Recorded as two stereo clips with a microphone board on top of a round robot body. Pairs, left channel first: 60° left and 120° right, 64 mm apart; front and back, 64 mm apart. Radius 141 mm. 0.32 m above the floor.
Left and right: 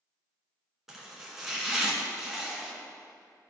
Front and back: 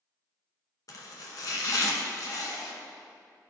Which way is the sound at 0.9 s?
35° right.